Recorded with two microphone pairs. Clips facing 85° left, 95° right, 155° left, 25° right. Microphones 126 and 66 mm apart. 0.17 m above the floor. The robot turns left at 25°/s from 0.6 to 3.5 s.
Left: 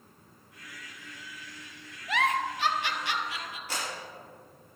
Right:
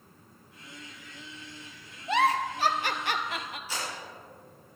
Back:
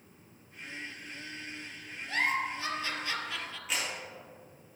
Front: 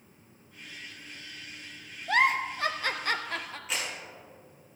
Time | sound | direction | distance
2.1 | a giggle | 30° right | 0.7 m
3.7 | a clap | 65° left | 4 m